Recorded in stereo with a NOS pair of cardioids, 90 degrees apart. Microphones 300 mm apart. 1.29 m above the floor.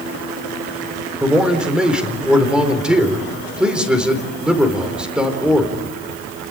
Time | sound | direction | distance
1.2 | a man speaking | 5° right | 4.5 m